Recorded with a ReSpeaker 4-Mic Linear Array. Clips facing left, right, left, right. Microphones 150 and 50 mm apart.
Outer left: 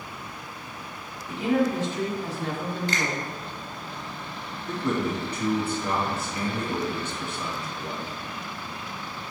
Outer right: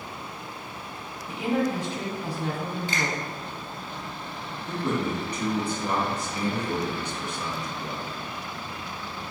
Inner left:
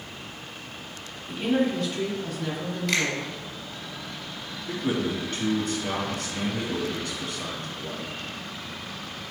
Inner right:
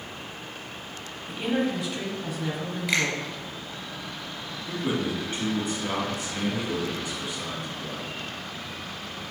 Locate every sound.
1.3 s a woman speaking: 15° right (ahead or behind), 1.3 m
2.9 s a finger snap: 10° right (ahead or behind), 2.5 m
4.7 s a man speaking: 15° right (ahead or behind), 1.7 m